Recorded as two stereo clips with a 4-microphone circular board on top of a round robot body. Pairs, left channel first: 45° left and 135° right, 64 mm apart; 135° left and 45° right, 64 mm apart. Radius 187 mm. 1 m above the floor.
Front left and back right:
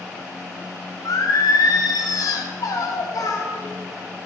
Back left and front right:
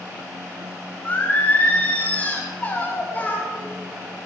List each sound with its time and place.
1.1 s singing: 75° left, 2 m